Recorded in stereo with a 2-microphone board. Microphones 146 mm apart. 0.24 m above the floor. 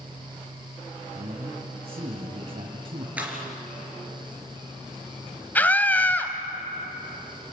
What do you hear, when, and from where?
1.1 s a man speaking: 45° right (ahead or behind), 1.7 m
3.2 s a clap: 10° right (ahead or behind), 4 m
5.5 s a scream: 10° left (ahead or behind), 1.5 m